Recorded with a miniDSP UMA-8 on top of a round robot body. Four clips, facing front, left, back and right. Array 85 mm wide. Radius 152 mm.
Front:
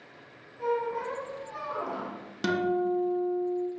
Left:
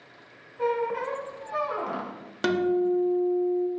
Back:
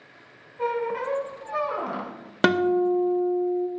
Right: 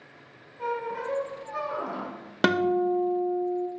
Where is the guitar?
155° right, 0.6 m.